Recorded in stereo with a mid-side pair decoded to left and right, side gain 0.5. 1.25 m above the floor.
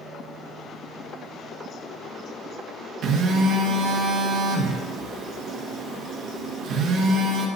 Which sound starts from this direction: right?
A phone buzzing, at 3.0 s.